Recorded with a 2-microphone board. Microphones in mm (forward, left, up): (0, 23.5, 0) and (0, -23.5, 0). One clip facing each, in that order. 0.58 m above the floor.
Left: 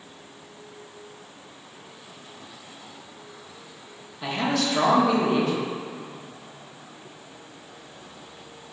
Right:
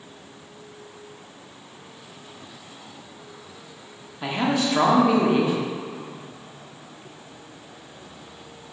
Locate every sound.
4.2 s a man speaking: 20° right (ahead or behind), 0.9 m